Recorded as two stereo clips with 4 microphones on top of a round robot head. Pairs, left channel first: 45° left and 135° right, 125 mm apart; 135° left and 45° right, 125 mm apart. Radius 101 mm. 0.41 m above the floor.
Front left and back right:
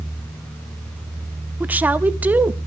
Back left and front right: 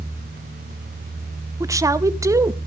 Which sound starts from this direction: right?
A woman speaking, at 1.6 s.